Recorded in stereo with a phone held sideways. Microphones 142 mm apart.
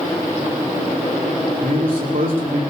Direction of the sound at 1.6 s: 80° right.